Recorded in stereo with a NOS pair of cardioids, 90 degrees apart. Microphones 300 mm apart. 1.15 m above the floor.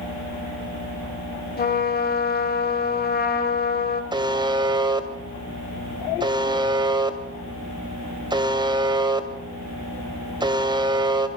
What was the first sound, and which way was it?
A trumpet, 30° left.